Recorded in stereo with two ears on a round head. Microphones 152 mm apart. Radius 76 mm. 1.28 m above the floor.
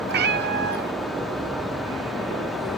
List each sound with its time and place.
0.1 s a cat meowing: 60° right (ahead or behind), 0.8 m